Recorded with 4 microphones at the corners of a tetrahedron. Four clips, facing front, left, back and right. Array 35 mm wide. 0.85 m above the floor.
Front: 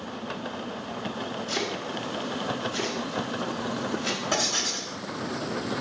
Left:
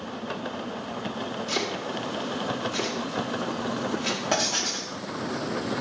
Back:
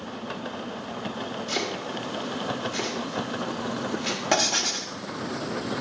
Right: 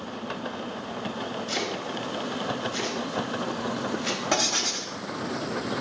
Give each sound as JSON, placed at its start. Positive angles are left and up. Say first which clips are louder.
{"t": 1.5, "sound": "chopping", "louder": "left 2 dB, back 1 dB", "azimuth_deg": 130, "distance_m": 3.0}
{"t": 4.3, "sound": "writing", "louder": "right 2 dB, back 5 dB", "azimuth_deg": 165, "distance_m": 1.6}